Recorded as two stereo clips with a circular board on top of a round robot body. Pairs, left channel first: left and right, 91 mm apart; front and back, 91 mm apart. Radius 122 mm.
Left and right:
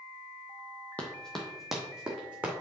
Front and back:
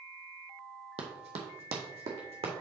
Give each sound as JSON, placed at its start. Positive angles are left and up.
{"t": 1.0, "sound": "running footsteps", "azimuth_deg": 165, "distance_m": 1.0}